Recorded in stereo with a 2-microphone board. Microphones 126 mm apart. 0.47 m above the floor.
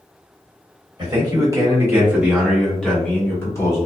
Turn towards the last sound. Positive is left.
turn(degrees=30)  # may be behind; listen again after turning